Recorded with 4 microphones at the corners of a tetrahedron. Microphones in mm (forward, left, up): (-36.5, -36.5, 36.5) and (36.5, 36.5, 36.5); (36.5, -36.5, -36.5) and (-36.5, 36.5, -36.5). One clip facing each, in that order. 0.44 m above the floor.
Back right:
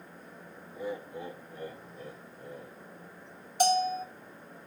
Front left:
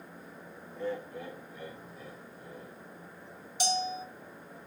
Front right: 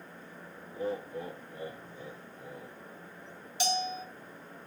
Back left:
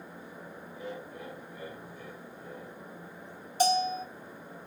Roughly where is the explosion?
No explosion in this recording.